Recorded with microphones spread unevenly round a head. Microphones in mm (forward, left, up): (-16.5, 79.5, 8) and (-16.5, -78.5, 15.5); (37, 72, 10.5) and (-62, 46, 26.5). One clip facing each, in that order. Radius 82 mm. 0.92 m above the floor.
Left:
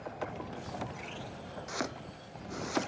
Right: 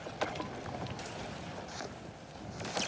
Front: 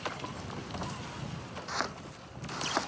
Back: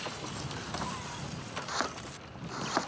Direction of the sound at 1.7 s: 110° left.